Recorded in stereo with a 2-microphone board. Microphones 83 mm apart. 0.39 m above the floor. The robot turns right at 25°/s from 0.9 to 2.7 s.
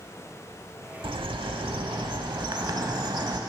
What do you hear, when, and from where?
1.0 s a bird: 100° right, 0.6 m; by 3.4 s 55° right, 0.6 m